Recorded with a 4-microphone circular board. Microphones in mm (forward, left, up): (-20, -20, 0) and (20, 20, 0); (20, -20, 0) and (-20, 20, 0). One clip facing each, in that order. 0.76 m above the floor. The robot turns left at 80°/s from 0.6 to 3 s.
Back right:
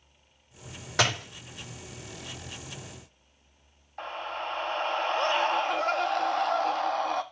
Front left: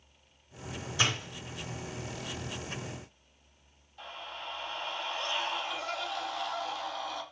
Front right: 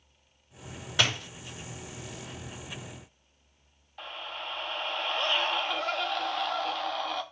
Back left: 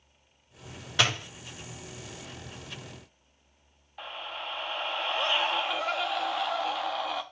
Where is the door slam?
130° right, 3.5 m; by 1.3 s 155° right, 3.5 m.